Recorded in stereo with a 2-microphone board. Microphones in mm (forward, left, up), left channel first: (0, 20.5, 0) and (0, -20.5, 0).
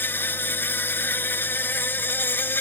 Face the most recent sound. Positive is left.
turn(degrees=60)  # may be behind; listen again after turning